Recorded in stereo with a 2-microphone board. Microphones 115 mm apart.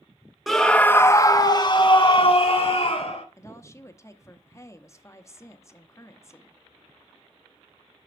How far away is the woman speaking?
About 0.8 m.